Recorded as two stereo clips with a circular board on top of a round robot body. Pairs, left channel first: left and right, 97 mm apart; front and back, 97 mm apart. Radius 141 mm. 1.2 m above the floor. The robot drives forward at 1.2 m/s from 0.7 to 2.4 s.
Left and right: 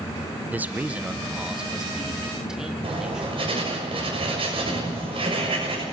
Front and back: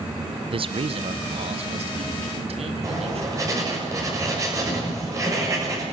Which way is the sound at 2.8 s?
120° right.